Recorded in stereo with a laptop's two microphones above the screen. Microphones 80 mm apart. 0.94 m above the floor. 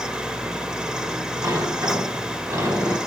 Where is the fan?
10° right (ahead or behind), 0.8 m.